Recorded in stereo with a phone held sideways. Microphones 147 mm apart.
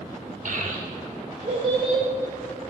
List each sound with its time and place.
0.5 s a child speaking: 60° right (ahead or behind), 1.3 m; by 2.0 s 40° right (ahead or behind), 2.5 m